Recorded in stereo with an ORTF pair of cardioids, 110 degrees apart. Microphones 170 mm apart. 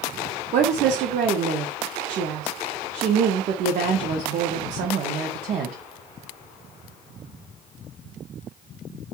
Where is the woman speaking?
55° right, 0.5 m.